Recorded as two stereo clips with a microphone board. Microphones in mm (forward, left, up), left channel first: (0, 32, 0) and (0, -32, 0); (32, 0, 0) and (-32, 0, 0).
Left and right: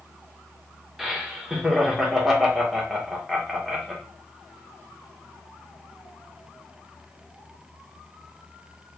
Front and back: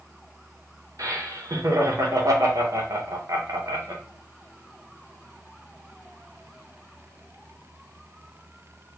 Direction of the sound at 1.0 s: 175° right.